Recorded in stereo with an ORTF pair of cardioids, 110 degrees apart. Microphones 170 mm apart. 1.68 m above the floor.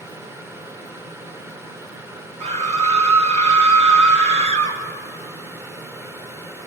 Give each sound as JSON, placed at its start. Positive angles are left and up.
{"t": 0.0, "sound": "a fan", "azimuth_deg": -15, "distance_m": 1.2}
{"t": 2.4, "sound": "a scream", "azimuth_deg": -40, "distance_m": 1.6}